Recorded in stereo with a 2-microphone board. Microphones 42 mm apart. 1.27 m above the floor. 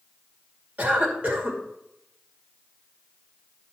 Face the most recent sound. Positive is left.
turn(degrees=-35)  # may be behind; listen again after turning